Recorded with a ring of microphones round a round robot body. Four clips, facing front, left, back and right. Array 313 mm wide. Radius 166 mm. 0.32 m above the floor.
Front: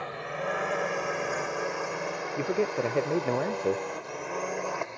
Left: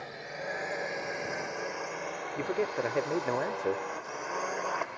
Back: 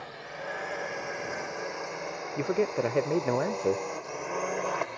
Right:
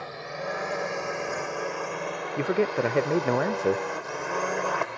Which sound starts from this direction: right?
A man speaking, at 2.4 s.